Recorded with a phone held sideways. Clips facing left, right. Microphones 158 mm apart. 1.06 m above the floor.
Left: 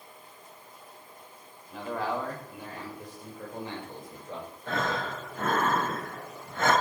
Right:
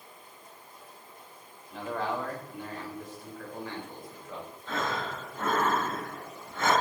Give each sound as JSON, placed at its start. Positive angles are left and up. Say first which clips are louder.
{"t": 1.7, "sound": "a man speaking", "louder": "left 1 dB", "side_deg": 5, "distance_m": 5.0}
{"t": 4.7, "sound": "breathing", "louder": "left 2 dB", "side_deg": 60, "distance_m": 5.5}